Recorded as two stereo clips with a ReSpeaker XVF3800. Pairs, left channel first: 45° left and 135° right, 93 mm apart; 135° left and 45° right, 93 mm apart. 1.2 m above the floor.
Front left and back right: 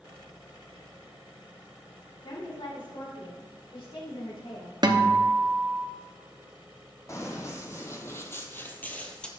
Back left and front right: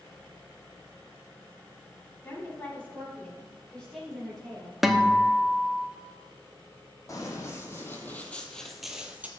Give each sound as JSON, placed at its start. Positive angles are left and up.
{"t": 2.2, "sound": "a woman speaking", "azimuth_deg": 70, "distance_m": 3.0}
{"t": 4.8, "sound": "a guitar", "azimuth_deg": -130, "distance_m": 0.8}
{"t": 7.1, "sound": "running footsteps", "azimuth_deg": 90, "distance_m": 2.0}